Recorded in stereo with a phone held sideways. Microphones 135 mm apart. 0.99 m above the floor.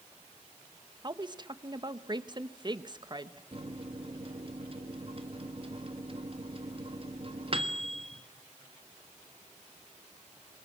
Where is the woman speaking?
35° right (ahead or behind), 1.3 m.